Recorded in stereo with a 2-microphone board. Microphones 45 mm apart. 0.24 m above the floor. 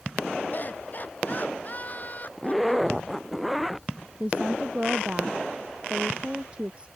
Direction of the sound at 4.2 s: 25° right (ahead or behind).